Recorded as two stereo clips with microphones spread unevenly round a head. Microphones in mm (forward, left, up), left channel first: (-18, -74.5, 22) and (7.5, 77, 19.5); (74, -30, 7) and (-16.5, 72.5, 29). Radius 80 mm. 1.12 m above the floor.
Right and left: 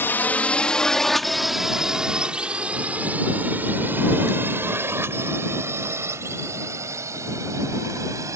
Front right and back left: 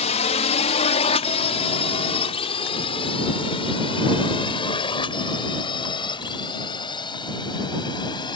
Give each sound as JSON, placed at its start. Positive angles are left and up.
{"t": 0.0, "sound": "a drone", "azimuth_deg": -25}